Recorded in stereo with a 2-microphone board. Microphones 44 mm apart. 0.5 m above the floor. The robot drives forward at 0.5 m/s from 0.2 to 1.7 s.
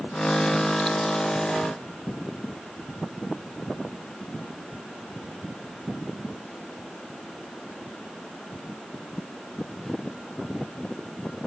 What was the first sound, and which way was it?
Only background noise.